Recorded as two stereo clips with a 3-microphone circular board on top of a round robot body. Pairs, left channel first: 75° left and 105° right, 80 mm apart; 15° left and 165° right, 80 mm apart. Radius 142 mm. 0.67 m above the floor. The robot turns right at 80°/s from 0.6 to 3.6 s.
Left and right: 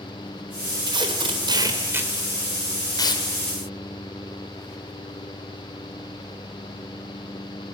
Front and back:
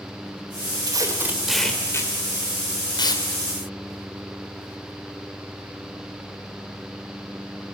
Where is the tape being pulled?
135° right, 3.5 m; by 3.2 s 60° left, 3.5 m.